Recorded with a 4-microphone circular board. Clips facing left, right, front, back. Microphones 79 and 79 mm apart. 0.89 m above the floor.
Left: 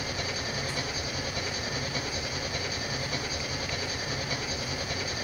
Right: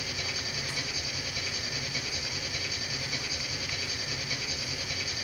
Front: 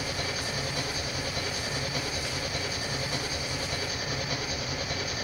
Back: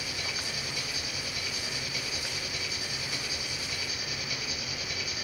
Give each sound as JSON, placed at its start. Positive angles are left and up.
{"t": 0.0, "sound": "an engine running", "azimuth_deg": 45, "distance_m": 1.7}